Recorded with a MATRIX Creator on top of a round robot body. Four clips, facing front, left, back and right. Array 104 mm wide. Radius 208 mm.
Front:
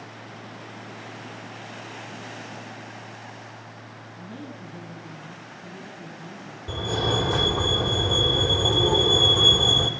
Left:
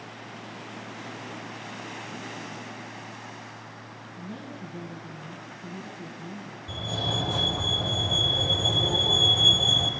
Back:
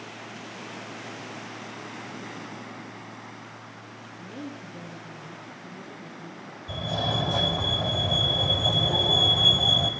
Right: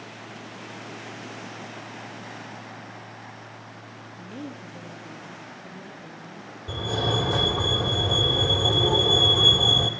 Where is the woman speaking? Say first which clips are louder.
Right 2 dB, back 1 dB; 50° left, 9 m.